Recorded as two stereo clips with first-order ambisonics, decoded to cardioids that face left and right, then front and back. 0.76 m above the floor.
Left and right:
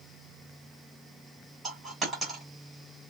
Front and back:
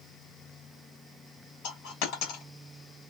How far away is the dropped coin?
About 1.8 m.